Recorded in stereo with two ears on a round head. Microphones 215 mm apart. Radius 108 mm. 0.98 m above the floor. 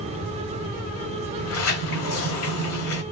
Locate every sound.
1.4 s a sliding door: 70° left (ahead or behind), 1.5 m